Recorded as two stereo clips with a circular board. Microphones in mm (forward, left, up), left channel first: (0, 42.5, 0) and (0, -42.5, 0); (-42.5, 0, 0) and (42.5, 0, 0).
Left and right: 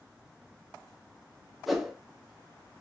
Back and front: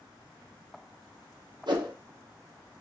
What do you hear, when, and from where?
1.7 s a whoosh: straight ahead, 0.9 m